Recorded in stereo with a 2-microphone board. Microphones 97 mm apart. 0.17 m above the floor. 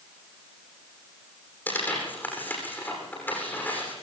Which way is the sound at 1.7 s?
20° left (ahead or behind).